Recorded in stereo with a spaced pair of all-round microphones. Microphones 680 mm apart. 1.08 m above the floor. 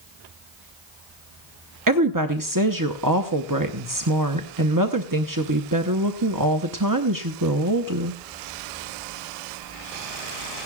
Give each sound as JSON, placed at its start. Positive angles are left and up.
{"t": 1.9, "sound": "a woman speaking", "side_deg": -30, "distance_m": 0.7}